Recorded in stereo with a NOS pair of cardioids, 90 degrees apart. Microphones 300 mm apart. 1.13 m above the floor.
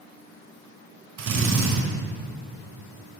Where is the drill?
60° right, 3.5 m.